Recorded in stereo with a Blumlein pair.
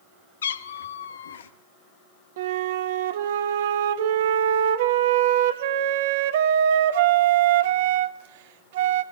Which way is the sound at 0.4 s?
65° left.